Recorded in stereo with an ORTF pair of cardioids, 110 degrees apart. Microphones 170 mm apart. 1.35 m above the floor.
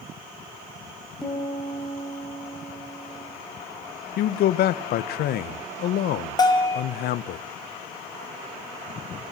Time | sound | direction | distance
1.2 | a piano | 5° left | 6.5 m
4.2 | a man speaking | 65° left | 0.9 m
6.4 | a bell | 25° left | 2.5 m